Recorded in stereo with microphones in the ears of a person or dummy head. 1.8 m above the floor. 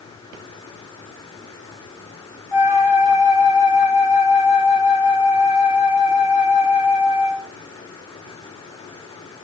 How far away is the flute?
About 2 m.